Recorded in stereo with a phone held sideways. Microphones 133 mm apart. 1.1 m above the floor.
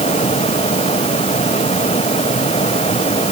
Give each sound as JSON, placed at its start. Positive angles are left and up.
{"t": 0.0, "sound": "a fan", "side_deg": 50}